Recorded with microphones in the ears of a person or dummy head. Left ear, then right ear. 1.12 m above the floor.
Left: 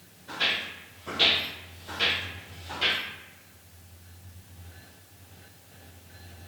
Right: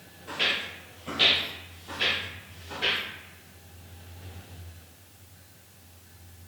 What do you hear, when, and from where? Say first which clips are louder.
0.3 s footsteps: even; 25° right (ahead or behind), 1.2 m; by 3.0 s 45° left (ahead or behind), 1.7 m